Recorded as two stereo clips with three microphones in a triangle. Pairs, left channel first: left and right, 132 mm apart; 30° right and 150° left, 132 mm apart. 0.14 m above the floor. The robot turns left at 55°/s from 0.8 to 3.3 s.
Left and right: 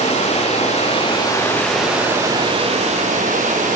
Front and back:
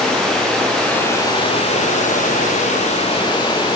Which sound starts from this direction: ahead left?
Running water, at 0.0 s.